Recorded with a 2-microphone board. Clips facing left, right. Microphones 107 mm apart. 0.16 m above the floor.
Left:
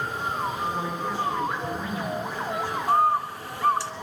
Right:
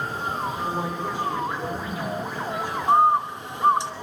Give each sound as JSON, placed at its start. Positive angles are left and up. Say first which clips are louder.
{"t": 0.6, "sound": "a woman speaking", "louder": "right 1 dB", "side_deg": -15, "distance_m": 9.5}
{"t": 2.9, "sound": "a bird", "louder": "right 4 dB", "side_deg": -25, "distance_m": 1.2}